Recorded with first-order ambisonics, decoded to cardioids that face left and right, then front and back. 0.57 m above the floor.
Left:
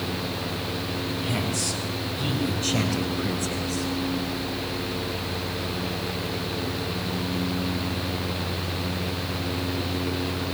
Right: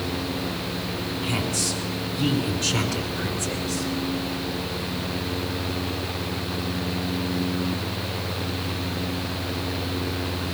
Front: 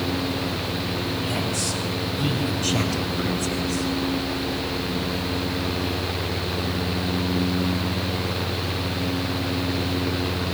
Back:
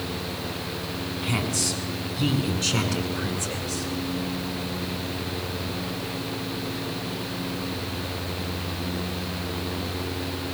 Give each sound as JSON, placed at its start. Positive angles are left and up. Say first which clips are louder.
{"t": 1.2, "sound": "a woman speaking", "louder": "right 3 dB, front 1 dB", "azimuth_deg": -165, "distance_m": 7.0}